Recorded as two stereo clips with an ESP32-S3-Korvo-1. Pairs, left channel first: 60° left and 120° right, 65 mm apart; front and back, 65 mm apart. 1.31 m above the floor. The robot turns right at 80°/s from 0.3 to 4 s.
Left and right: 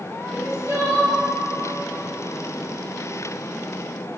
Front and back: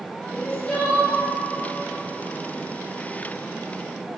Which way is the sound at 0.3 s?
110° right.